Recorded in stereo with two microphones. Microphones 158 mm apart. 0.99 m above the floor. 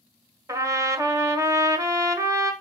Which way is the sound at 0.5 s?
20° right (ahead or behind).